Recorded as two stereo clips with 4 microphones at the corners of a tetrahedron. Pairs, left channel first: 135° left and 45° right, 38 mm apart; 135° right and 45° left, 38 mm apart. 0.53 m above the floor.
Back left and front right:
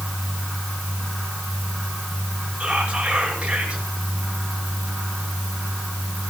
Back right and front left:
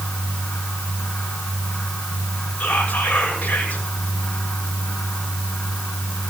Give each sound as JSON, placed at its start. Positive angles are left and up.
{"t": 2.6, "sound": "whispering", "azimuth_deg": -115, "distance_m": 6.0}